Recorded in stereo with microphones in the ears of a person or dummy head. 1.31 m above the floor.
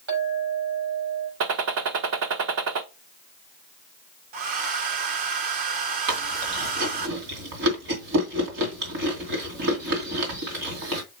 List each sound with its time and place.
0.1 s a clink: 75° right (ahead or behind), 6 m
1.4 s a gunshot: 60° right (ahead or behind), 0.7 m
4.3 s a hair dryer: 40° right (ahead or behind), 0.5 m
6.1 s chewing: 60° right (ahead or behind), 3 m